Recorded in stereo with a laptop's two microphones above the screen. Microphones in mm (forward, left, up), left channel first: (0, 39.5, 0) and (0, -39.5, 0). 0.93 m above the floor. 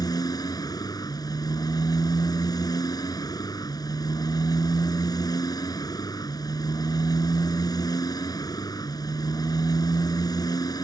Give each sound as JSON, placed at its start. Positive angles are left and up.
{"t": 0.0, "sound": "a motorcycle", "side_deg": 60}